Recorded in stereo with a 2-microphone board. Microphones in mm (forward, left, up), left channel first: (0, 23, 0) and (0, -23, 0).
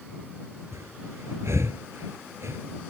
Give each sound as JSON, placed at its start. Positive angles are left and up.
{"t": 0.7, "sound": "breathing", "side_deg": -70}